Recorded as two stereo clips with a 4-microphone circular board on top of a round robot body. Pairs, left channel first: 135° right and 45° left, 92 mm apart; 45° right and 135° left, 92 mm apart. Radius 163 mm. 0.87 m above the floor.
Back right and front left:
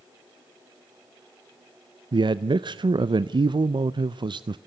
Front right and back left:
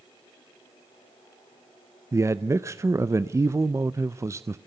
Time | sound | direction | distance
2.1 | a man speaking | 80° left | 0.6 m